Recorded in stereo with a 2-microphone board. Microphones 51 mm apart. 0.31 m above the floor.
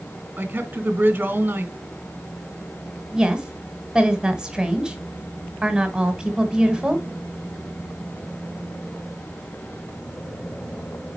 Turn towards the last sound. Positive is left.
turn(degrees=-15)  # may be behind; listen again after turning